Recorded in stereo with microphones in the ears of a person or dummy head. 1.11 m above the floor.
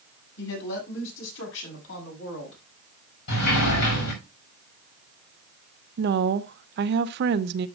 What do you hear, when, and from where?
0.4 s a woman speaking: 65° left (ahead or behind), 7 m; by 2.6 s 80° left, 7 m
3.3 s a sliding door: 75° left (ahead or behind), 5.5 m
6.0 s a woman speaking: 50° right (ahead or behind), 0.5 m